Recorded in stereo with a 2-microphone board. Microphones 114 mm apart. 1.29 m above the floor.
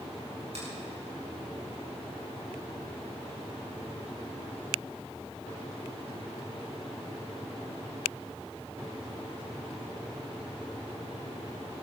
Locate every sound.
0.5 s a finger snap: 80° right, 5.5 m